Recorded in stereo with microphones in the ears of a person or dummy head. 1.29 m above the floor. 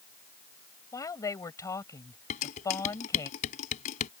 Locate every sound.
0.9 s a woman speaking: 15° left (ahead or behind)
2.3 s dishes clattering: 40° left (ahead or behind)